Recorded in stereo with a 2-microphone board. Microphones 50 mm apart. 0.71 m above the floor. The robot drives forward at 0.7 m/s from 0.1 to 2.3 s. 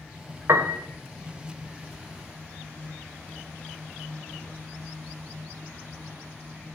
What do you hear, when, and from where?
0.5 s a piano: 70° right (ahead or behind), 0.9 m; by 0.8 s 75° right (ahead or behind), 0.9 m